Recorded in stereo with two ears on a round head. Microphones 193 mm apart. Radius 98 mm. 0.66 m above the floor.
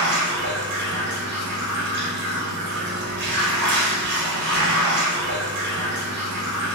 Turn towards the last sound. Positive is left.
turn(degrees=-50)  # may be behind; listen again after turning